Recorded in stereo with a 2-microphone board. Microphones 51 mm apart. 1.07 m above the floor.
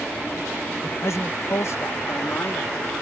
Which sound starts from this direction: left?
A man speaking, at 0.8 s.